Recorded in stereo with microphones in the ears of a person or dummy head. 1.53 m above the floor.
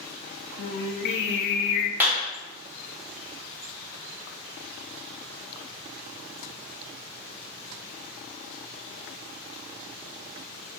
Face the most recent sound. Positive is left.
turn(degrees=-10)  # may be behind; listen again after turning